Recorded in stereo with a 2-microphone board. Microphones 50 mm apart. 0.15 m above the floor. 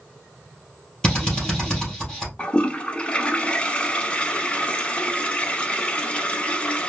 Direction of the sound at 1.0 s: 15° left (ahead or behind).